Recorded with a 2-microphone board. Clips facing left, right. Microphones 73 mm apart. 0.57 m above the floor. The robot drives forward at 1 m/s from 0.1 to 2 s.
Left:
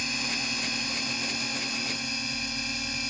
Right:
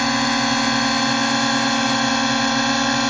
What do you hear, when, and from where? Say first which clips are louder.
0.0 s a drone: right 15 dB; 65° right (ahead or behind); by 3.1 s 70° right (ahead or behind)